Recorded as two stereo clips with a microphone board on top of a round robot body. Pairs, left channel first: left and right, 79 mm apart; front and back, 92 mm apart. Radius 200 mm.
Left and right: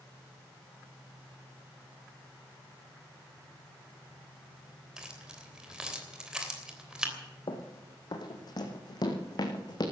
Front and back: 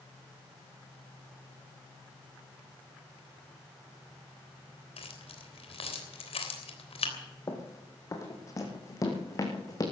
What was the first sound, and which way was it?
Keys jangling, 10° right.